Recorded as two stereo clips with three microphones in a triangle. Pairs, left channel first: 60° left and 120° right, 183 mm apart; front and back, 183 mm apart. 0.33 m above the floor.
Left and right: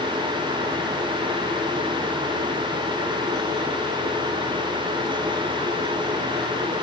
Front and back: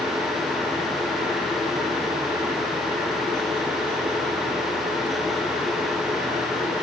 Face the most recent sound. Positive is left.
No sound to turn to.